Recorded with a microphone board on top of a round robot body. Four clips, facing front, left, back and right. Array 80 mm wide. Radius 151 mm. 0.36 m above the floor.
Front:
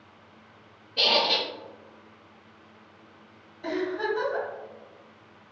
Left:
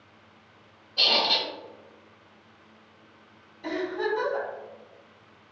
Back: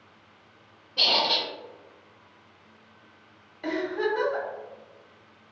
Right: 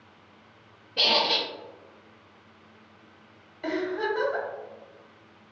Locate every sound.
1.0 s a squeak: 80° right, 0.5 m
3.6 s a giggle: 125° right, 1.8 m